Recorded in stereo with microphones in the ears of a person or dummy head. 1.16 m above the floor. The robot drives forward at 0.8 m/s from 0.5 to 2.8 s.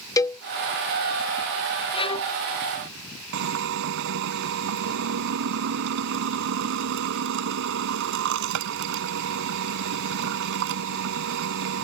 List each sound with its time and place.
0.2 s a cowbell: 20° left (ahead or behind)
1.9 s a violin: 25° left (ahead or behind); by 2.3 s 20° left (ahead or behind)
3.3 s a drill: 70° right (ahead or behind)